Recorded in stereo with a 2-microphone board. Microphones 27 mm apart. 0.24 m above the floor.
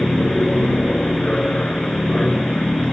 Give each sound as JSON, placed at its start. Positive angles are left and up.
{"t": 0.0, "sound": "an aircraft", "side_deg": 35}